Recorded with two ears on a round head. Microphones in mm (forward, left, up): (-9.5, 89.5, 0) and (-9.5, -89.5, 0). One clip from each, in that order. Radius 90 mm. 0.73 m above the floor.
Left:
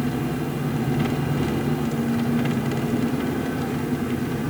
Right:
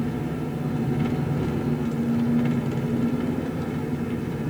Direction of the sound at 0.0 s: 35° left (ahead or behind).